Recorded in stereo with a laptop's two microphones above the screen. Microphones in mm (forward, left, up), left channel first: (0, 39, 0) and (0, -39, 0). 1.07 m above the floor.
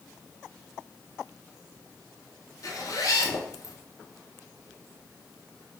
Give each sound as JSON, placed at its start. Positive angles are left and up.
{"t": 2.6, "sound": "a zipper", "side_deg": 50, "distance_m": 0.8}